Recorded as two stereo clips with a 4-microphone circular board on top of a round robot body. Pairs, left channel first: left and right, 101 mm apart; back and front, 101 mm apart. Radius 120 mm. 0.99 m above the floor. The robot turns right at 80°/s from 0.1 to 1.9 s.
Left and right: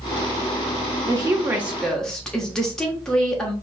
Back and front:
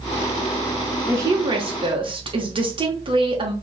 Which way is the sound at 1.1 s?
60° right.